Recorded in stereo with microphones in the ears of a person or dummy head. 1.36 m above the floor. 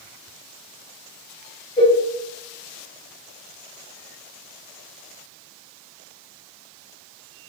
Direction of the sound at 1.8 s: 20° left (ahead or behind).